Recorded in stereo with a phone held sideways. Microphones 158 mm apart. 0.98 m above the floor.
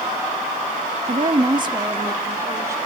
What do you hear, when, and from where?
1.1 s a woman speaking: 50° right (ahead or behind), 0.9 m; by 2.8 s 20° right (ahead or behind), 3 m